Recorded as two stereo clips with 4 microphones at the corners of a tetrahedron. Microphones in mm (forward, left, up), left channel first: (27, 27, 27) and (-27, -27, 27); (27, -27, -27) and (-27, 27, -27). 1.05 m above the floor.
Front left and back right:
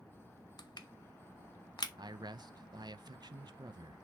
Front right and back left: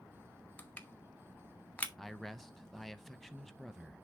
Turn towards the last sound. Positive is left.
turn(degrees=-135)